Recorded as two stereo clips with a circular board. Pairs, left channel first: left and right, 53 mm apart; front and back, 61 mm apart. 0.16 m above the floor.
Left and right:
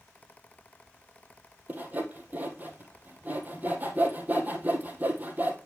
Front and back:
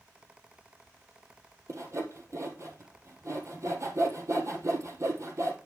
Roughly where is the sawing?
Behind right.